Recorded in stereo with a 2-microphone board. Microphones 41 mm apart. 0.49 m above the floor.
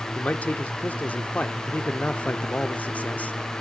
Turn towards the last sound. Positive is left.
turn(degrees=40)  # may be behind; listen again after turning